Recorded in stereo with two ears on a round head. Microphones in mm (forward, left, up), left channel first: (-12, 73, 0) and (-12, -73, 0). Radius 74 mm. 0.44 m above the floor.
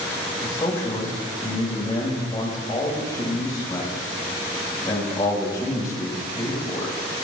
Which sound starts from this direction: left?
A man speaking, at 0.4 s.